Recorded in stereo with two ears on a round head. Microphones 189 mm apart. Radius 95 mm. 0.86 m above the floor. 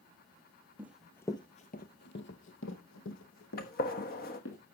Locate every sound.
0.8 s running footsteps: 10° right (ahead or behind), 1.2 m; by 4.6 s 70° left (ahead or behind), 4 m
3.6 s a gunshot: 45° left (ahead or behind), 1.2 m